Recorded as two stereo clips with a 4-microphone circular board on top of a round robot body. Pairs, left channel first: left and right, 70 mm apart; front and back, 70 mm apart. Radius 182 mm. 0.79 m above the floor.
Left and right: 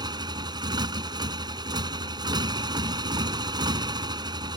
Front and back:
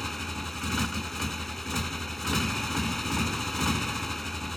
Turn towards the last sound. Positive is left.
turn(degrees=-85)